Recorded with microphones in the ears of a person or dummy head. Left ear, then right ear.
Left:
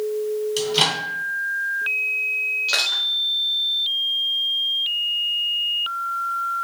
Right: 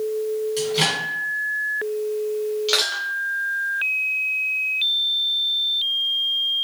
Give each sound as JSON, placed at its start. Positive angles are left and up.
{"t": 0.6, "sound": "a microwave", "side_deg": 30, "distance_m": 1.6}
{"t": 2.7, "sound": "crushing", "side_deg": 0, "distance_m": 0.8}